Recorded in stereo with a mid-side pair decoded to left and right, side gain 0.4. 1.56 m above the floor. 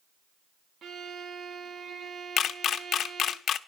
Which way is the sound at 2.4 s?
70° left.